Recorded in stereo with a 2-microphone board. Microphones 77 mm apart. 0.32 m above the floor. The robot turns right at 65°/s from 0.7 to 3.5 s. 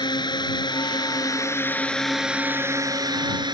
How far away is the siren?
No siren in this recording.